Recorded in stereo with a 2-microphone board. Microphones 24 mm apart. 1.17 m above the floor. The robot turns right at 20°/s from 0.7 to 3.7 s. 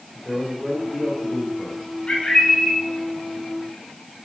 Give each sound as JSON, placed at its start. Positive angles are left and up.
{"t": 0.1, "sound": "a man speaking", "side_deg": 15, "distance_m": 4.0}
{"t": 2.1, "sound": "a bird", "side_deg": 35, "distance_m": 4.5}